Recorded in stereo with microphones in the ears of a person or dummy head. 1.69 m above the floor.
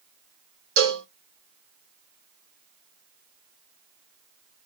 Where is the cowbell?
75° right (ahead or behind), 3 m.